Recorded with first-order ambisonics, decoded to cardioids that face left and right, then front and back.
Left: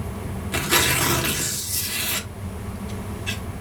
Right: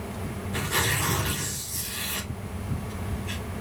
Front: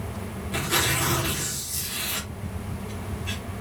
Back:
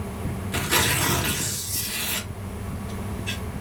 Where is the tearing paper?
100° left, 2 m.